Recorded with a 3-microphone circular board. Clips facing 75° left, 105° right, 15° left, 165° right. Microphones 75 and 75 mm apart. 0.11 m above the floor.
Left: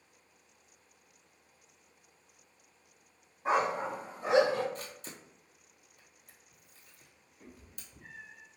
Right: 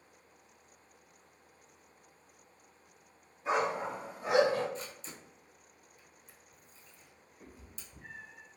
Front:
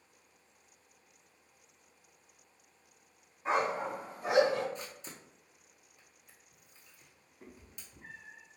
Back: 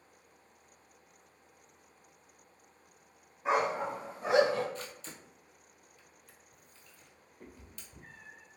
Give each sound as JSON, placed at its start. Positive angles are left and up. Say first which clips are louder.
{"t": 3.5, "sound": "a dog barking", "louder": "left 2 dB, back 1 dB", "azimuth_deg": 115, "distance_m": 1.9}
{"t": 4.8, "sound": "a camera shutter", "louder": "even, back 1 dB", "azimuth_deg": 85, "distance_m": 0.9}
{"t": 7.4, "sound": "a cat meowing", "louder": "even, back 1 dB", "azimuth_deg": 175, "distance_m": 1.6}